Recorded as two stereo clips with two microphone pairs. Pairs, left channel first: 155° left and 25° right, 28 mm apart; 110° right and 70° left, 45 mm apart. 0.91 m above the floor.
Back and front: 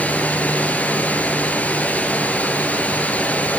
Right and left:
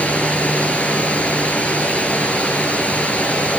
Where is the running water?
170° right, 5.5 m.